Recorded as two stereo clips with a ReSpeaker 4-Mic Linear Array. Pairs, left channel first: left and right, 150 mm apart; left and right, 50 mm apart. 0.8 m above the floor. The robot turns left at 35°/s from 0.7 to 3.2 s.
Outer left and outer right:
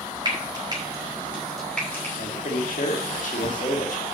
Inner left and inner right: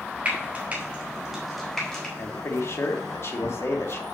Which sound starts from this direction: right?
Frying, at 0.2 s.